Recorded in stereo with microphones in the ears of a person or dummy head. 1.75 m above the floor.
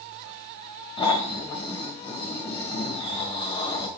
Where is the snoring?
20° left (ahead or behind), 1.0 m.